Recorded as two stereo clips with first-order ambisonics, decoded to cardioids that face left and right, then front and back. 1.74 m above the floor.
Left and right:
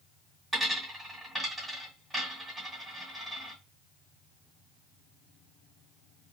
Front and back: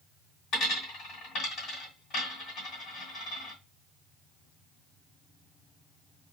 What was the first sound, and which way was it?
A dropped coin, 10° right.